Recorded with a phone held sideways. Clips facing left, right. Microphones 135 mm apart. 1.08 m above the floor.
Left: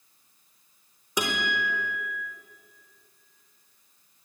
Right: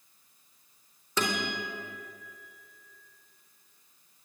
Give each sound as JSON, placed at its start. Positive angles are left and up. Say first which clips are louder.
{"t": 1.2, "sound": "a guitar", "louder": "left 2 dB", "side_deg": 15, "distance_m": 4.0}